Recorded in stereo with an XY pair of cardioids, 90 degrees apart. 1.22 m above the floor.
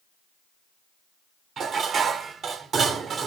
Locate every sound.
1.6 s dishes clattering: 60° right, 2.5 m